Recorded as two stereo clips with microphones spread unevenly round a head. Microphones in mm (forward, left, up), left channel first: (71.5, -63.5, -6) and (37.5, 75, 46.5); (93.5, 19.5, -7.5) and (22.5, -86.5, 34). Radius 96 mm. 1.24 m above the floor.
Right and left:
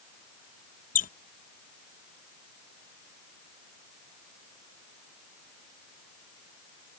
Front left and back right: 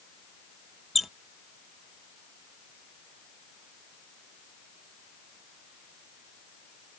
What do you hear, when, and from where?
0.9 s a squeak: 40° right